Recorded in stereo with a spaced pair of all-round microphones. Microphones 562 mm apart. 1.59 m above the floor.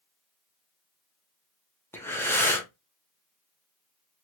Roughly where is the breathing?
Centre.